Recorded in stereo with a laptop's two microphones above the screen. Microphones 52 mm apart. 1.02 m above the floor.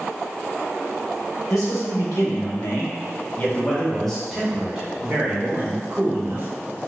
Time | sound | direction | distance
1.5 | a man speaking | 80° left | 1.2 m